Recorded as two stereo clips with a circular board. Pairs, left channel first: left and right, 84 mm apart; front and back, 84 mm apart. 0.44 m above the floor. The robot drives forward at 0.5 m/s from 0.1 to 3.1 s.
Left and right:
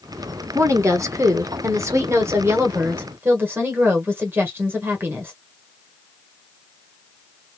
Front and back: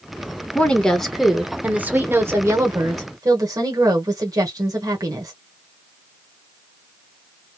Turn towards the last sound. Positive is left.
turn(degrees=-145)